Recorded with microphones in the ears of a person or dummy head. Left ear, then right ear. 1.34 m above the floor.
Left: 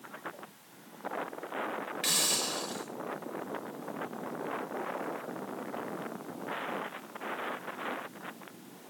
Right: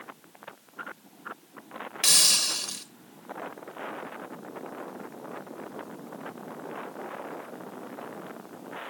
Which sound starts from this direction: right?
A hiss, at 2.0 s.